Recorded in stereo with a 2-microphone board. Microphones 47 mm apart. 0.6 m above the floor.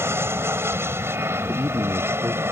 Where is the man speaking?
50° right (ahead or behind).